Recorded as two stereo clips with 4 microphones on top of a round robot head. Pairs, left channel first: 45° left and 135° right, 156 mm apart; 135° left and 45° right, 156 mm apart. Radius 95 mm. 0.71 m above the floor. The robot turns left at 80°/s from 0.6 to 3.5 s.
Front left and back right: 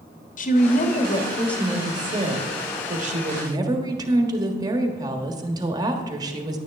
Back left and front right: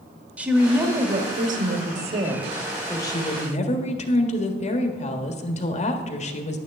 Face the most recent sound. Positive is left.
turn(degrees=165)